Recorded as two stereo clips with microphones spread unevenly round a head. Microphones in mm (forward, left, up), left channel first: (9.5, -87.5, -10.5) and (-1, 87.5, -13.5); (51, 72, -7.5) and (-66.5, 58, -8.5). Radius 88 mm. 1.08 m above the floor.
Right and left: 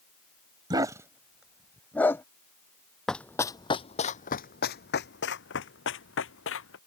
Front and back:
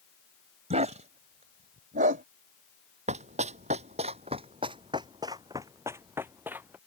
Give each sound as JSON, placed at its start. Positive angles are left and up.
{"t": 0.7, "sound": "a dog barking", "azimuth_deg": 160}
{"t": 3.1, "sound": "running footsteps", "azimuth_deg": -170}